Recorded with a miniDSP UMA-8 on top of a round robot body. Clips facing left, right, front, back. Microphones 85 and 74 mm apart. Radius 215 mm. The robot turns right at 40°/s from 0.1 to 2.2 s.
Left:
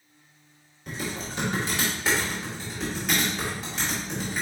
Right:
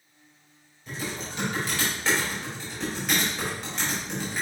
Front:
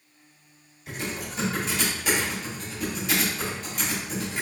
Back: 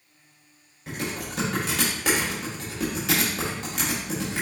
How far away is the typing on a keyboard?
About 1.3 m.